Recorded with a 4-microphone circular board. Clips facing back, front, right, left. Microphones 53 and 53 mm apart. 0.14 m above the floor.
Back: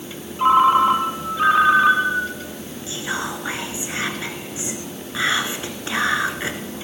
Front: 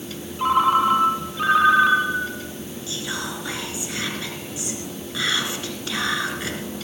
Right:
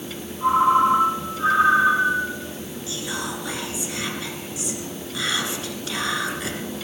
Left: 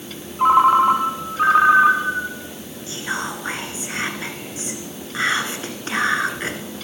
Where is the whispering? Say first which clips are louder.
Back 4 dB, left 4 dB; 125° left, 1.7 m.